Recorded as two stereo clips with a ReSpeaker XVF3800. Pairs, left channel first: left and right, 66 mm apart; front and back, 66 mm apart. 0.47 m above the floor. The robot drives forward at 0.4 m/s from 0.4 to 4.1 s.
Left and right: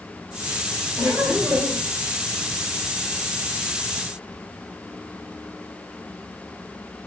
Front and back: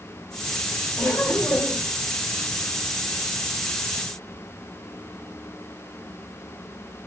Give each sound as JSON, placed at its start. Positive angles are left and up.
{"t": 1.0, "sound": "laughter", "azimuth_deg": -40, "distance_m": 1.8}